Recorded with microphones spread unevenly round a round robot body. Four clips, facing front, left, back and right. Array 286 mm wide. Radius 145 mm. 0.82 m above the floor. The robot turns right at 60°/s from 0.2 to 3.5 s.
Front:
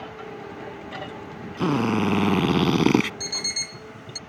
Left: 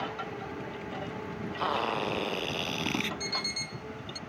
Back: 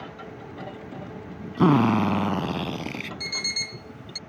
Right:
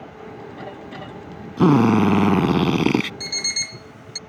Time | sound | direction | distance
1.6 | a drill | 120° right | ?
3.2 | an alarm clock | 105° right | ?